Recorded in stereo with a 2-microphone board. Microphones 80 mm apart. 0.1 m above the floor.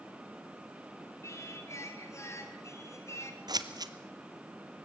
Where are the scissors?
55° right (ahead or behind), 1.0 m.